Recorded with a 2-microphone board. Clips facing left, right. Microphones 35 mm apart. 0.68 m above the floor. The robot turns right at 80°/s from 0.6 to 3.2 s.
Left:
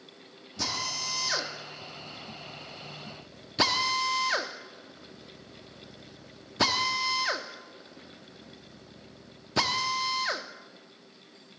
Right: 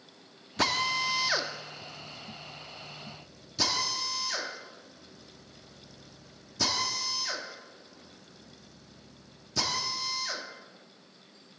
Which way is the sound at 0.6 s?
50° right (ahead or behind).